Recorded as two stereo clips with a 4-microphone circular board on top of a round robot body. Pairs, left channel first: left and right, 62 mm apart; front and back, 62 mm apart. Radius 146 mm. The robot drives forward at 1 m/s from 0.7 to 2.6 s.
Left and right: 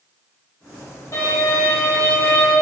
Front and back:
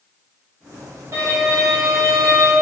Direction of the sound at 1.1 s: 130° left.